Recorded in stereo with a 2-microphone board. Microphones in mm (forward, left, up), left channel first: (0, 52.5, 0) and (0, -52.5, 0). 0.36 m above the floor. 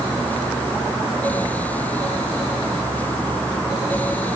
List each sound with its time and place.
Only background noise.